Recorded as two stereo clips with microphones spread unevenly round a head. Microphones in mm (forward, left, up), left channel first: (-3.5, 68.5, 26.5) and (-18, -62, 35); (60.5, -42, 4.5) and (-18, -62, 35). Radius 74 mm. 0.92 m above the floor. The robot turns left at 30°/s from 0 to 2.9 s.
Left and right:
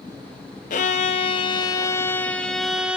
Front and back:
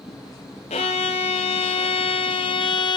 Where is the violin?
50° left, 1.1 m; by 3.0 s 15° right, 1.1 m.